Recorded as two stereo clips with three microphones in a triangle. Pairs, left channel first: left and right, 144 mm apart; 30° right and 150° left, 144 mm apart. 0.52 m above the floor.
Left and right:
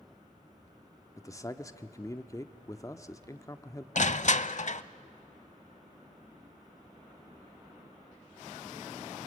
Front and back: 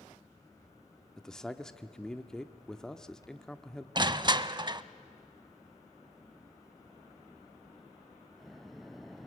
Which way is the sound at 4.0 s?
100° left.